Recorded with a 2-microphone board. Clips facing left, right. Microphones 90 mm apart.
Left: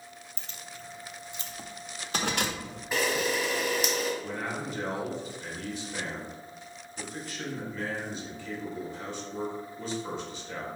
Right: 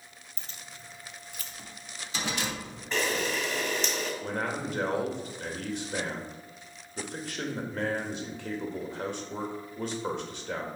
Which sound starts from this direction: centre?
A camera shutter, at 2.9 s.